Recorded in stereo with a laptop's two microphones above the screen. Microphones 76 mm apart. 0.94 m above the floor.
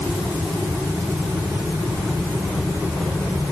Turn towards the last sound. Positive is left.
No sound to turn to.